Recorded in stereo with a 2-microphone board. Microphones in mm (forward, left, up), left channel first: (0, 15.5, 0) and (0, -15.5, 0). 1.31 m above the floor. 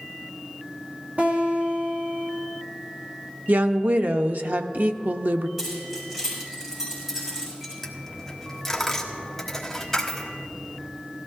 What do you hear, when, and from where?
1.2 s a guitar: 55° right (ahead or behind), 2.5 m
3.5 s a woman speaking: 65° right (ahead or behind), 0.7 m
5.6 s keys jangling: 15° right (ahead or behind), 5.5 m
7.8 s a dropped coin: 15° left (ahead or behind), 1.3 m